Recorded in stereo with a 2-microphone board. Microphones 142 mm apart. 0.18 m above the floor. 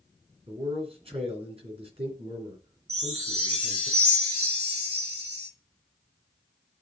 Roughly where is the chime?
Right.